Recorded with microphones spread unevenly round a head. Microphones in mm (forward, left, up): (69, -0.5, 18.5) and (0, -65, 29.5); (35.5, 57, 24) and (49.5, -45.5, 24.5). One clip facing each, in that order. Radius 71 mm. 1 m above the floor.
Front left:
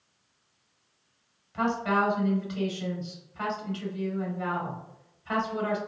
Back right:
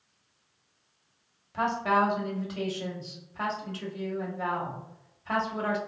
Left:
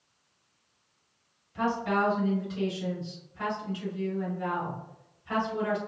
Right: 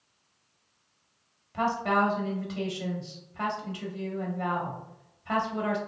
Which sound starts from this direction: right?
A woman speaking, at 1.5 s.